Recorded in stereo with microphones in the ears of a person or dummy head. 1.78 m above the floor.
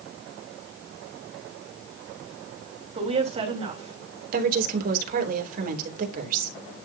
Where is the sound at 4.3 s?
50° right (ahead or behind), 3 m.